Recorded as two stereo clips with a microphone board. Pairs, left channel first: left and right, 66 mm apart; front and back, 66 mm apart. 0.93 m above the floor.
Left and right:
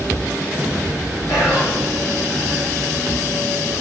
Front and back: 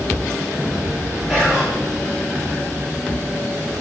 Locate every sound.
1.3 s whispering: 85° left, 0.6 m